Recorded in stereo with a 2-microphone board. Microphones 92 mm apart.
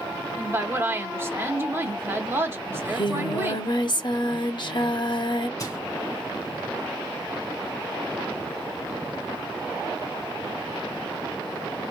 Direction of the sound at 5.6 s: 40° left (ahead or behind).